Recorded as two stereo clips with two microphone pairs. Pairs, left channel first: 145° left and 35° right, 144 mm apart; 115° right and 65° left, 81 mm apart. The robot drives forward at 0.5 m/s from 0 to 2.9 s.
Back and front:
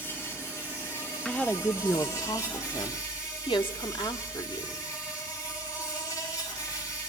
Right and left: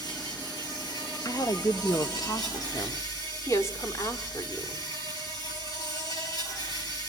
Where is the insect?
140° right, 7.5 m; by 7.1 s 145° right, 8.5 m.